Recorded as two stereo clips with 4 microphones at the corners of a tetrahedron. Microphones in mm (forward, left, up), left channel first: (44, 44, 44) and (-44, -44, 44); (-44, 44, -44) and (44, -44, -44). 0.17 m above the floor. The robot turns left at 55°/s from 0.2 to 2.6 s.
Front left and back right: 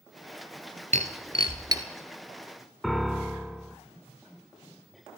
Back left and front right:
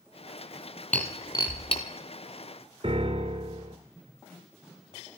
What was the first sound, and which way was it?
Breaking glass, 145° right.